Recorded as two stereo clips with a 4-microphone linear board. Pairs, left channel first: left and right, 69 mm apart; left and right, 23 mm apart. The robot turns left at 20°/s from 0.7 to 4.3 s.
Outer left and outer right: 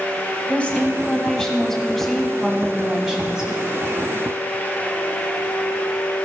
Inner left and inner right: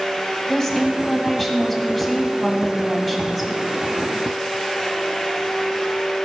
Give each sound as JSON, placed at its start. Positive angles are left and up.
{"t": 0.5, "sound": "a woman speaking", "azimuth_deg": 35, "distance_m": 1.7}